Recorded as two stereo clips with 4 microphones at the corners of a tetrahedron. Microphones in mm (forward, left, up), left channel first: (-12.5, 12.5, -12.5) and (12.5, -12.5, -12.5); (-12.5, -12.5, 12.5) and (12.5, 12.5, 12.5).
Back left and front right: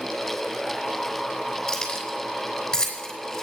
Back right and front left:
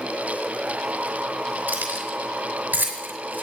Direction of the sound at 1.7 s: 60° left.